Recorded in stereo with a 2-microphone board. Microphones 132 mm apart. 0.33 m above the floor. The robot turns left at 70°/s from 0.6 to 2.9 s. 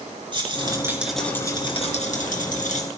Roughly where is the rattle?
Behind right.